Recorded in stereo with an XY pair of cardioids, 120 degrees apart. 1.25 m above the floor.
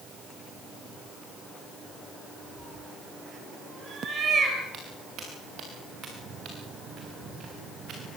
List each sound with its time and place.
2.6 s a cat meowing: 35° right, 5 m; by 4.6 s 45° right, 5 m
4.7 s footsteps: 60° right, 7 m